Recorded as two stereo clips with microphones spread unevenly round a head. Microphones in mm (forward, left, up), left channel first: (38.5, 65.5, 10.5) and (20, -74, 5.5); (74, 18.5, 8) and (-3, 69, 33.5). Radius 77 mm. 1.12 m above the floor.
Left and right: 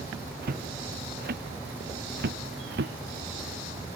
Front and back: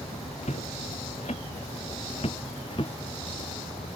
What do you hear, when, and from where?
0.4 s footsteps: 80° right; by 2.9 s 95° right